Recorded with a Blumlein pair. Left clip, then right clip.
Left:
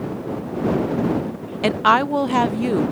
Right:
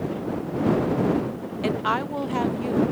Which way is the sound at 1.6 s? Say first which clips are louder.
Left 9 dB; 25° left.